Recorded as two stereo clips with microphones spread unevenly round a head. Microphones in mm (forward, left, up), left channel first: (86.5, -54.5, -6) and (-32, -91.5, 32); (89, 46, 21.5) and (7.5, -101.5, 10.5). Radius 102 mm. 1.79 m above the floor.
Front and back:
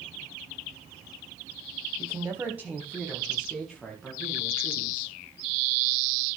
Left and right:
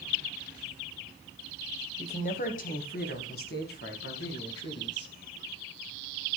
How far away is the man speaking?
About 1.3 m.